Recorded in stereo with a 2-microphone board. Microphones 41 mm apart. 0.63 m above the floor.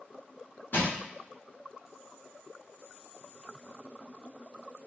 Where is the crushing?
60° left (ahead or behind), 0.8 m.